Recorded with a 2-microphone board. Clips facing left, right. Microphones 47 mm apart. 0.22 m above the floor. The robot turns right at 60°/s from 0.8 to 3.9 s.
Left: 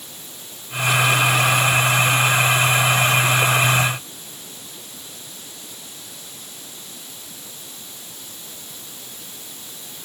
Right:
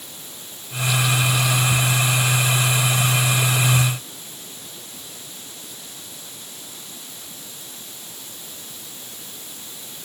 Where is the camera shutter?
I don't hear a camera shutter.